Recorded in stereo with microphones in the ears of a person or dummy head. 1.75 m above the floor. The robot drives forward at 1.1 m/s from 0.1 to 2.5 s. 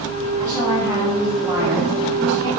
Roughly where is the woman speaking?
Centre.